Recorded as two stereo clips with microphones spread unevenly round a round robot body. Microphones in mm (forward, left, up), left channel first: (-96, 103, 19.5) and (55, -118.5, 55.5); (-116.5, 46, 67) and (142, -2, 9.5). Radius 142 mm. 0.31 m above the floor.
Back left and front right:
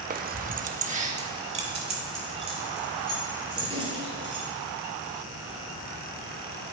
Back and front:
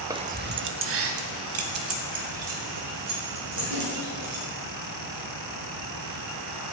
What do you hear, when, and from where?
0.1 s keys jangling: 25° right, 0.5 m; by 4.4 s 15° left, 5 m